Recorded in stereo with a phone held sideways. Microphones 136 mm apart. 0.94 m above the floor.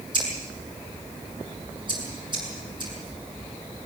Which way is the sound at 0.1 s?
35° right (ahead or behind).